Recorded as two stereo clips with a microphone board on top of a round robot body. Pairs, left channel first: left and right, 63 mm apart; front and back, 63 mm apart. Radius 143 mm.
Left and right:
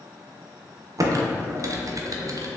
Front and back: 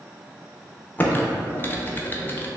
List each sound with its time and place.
1.0 s typing on a keyboard: 60° right, 0.6 m